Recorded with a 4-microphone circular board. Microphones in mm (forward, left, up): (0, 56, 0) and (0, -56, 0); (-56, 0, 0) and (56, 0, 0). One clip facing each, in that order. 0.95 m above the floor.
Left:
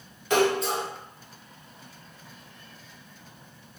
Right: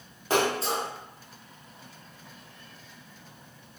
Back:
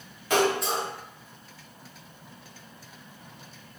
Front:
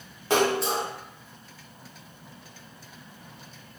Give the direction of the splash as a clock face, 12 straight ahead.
2 o'clock.